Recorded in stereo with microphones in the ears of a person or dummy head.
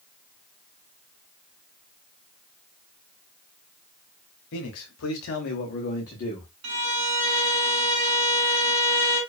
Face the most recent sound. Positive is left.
turn(degrees=-60)  # may be behind; listen again after turning